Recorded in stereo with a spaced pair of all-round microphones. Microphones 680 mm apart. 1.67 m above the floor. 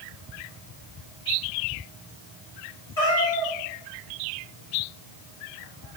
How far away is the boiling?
I don't hear boiling.